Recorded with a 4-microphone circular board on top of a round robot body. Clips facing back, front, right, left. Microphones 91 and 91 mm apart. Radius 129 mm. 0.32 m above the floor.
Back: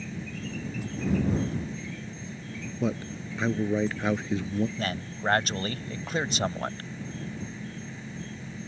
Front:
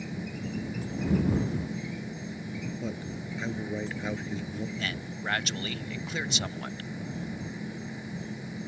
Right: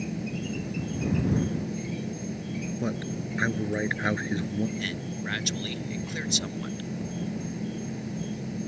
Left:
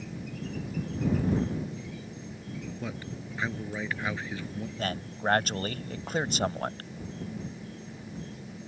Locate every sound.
0.0 s an insect: 80° right
2.8 s a man speaking: 160° right
4.8 s a man speaking: 130° left